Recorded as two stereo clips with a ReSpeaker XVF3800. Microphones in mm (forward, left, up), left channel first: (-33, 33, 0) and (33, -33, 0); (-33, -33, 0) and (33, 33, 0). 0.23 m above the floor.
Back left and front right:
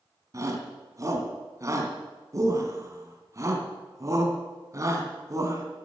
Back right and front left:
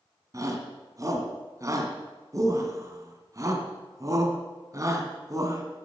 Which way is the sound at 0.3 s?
Straight ahead.